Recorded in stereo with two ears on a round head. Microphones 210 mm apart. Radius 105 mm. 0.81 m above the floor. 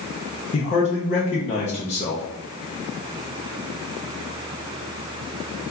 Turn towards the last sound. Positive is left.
turn(degrees=30)  # may be behind; listen again after turning